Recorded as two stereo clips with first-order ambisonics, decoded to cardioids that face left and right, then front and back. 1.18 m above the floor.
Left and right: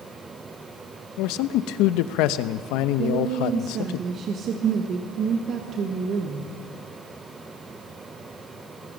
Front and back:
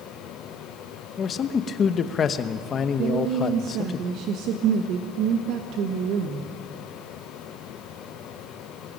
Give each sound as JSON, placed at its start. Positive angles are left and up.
{"t": 1.2, "sound": "a man speaking", "azimuth_deg": 65, "distance_m": 0.8}
{"t": 3.0, "sound": "a woman speaking", "azimuth_deg": -145, "distance_m": 1.4}